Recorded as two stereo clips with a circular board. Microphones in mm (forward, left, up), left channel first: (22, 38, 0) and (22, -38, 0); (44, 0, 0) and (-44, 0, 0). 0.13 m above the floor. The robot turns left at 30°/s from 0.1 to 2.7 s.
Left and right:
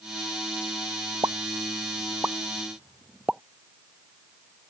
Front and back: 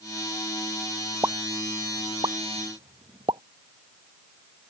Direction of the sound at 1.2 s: 125° right.